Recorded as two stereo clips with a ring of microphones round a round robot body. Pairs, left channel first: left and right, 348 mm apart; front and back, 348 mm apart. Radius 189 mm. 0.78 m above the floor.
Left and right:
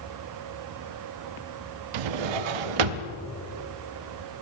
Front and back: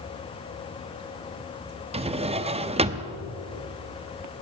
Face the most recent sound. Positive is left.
turn(degrees=-105)